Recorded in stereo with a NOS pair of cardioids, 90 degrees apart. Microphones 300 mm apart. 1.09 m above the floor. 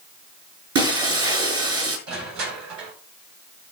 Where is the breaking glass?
50° right, 5.5 m.